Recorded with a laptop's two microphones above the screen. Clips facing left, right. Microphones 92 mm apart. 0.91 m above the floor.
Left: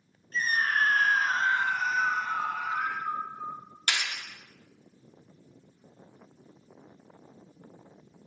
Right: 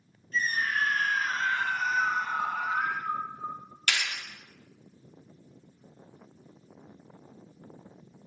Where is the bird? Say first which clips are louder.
Even; 80° left, 3.5 m.